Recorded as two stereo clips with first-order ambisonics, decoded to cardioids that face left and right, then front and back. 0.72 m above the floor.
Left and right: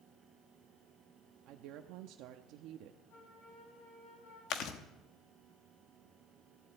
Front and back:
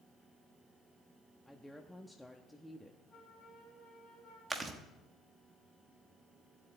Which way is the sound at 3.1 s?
80° left.